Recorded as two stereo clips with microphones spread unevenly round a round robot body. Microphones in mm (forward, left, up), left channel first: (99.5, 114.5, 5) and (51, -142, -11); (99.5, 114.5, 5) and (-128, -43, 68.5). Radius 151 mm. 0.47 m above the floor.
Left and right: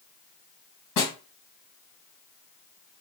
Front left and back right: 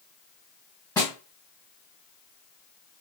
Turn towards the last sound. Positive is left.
turn(degrees=120)